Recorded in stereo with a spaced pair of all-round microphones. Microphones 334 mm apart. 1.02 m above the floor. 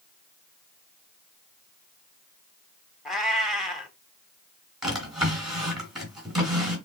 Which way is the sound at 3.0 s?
Centre (ahead or behind).